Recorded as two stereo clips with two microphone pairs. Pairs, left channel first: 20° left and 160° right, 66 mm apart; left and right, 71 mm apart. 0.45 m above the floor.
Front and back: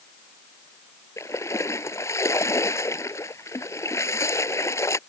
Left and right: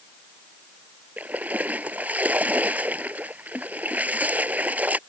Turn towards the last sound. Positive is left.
turn(degrees=-20)